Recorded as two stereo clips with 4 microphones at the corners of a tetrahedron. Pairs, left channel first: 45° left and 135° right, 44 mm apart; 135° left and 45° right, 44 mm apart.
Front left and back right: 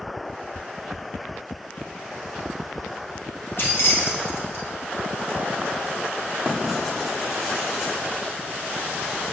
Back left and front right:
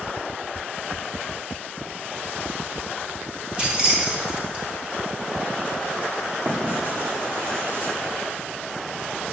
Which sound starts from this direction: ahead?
Keys jangling, at 3.6 s.